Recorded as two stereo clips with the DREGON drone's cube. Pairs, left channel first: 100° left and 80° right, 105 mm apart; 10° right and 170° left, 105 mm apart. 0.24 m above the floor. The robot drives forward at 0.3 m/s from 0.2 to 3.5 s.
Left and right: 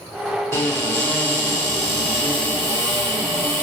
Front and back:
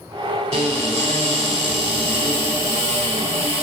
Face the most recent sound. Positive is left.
turn(degrees=175)